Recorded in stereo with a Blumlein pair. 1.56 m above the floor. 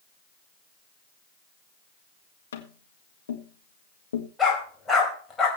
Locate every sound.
2.5 s tapping: 65° left, 1.8 m
4.4 s a dog barking: 10° left, 4 m